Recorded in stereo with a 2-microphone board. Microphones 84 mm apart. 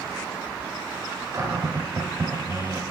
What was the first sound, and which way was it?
A cupboard door, 35° right (ahead or behind).